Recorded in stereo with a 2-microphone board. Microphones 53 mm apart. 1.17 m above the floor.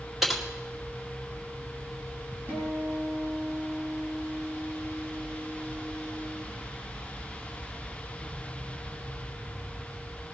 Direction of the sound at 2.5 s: 30° right (ahead or behind).